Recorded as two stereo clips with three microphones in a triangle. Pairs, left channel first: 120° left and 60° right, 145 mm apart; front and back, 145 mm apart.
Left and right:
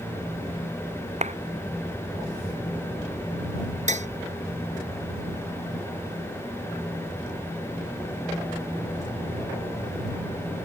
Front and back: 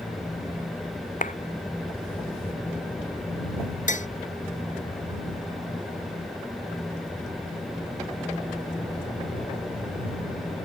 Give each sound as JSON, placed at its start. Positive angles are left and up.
{"t": 1.2, "sound": "a clap", "azimuth_deg": -25}
{"t": 3.9, "sound": "tapping", "azimuth_deg": -30}